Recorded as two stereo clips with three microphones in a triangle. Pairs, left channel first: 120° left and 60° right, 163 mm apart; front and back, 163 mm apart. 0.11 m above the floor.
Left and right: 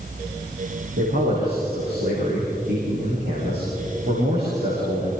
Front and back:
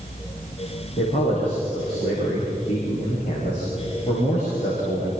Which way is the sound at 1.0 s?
55° right.